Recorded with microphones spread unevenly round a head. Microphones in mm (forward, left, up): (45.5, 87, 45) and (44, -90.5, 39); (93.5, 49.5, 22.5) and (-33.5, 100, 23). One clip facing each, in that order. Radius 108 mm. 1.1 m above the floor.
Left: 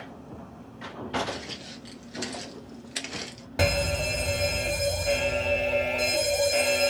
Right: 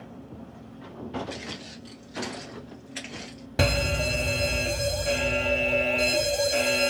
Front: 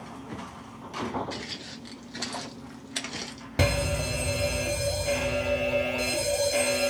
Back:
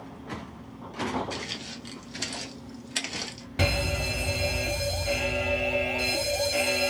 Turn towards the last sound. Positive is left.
turn(degrees=-45)